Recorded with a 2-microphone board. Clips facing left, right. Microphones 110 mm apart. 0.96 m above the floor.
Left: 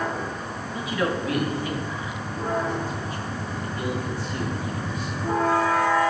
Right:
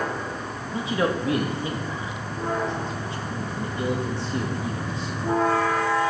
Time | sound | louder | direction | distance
0.7 | a man speaking | right 2 dB | 25° right (ahead or behind) | 1.1 m